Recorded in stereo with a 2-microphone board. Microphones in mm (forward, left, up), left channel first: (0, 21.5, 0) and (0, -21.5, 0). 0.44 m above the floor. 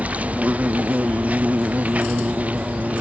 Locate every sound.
0.0 s an insect: 35° right (ahead or behind)